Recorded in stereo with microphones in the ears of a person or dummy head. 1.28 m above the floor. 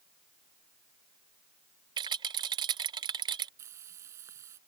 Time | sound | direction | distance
2.0 | a rattle | 20° right (ahead or behind) | ?
3.6 | frying | 15° right (ahead or behind) | ?